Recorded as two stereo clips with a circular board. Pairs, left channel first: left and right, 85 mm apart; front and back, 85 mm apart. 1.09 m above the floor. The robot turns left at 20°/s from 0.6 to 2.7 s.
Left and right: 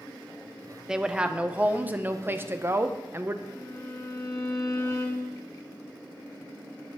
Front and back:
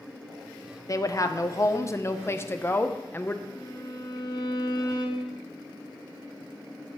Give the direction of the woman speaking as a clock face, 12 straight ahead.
12 o'clock.